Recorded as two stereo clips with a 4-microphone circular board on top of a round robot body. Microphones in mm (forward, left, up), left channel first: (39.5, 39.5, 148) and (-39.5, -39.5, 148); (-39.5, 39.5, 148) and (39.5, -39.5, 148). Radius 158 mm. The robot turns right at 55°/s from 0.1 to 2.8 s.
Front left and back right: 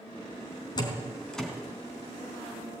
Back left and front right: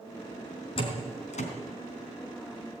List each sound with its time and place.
0.8 s a door slam: 95° left, 3.5 m; by 1.5 s 135° left, 3.5 m